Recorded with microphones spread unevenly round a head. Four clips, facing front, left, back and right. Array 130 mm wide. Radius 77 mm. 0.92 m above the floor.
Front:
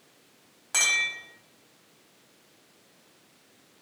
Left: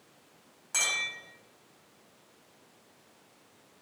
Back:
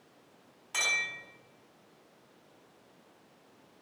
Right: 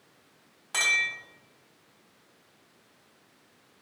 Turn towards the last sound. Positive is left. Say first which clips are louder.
# right 5 dB, front 4 dB
turn(degrees=-20)